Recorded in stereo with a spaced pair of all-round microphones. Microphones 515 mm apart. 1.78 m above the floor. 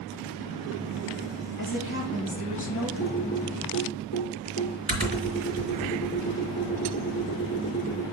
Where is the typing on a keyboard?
15° right (ahead or behind), 3 m.